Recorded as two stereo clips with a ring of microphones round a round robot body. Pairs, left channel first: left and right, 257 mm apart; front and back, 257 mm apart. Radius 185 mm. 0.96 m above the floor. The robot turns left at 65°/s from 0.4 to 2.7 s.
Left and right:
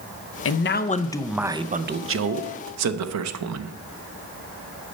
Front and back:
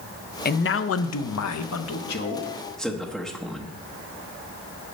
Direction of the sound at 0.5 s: 55° left.